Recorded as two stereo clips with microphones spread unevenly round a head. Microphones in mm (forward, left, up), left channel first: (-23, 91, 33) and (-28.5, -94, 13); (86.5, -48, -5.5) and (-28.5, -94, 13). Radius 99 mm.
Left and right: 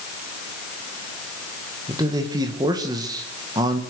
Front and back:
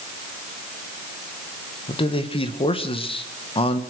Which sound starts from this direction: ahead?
A man speaking, at 1.9 s.